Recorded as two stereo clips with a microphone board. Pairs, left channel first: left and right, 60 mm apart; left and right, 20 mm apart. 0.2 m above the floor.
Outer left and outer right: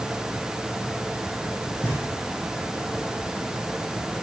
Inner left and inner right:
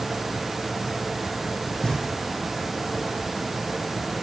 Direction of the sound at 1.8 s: 65° left (ahead or behind).